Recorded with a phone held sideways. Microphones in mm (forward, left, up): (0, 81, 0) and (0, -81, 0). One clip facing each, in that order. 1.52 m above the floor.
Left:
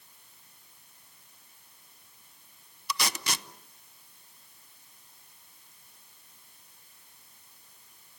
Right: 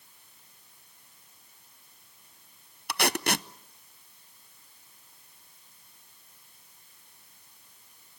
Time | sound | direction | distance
2.9 | tape being pulled | 60° right (ahead or behind) | 0.6 m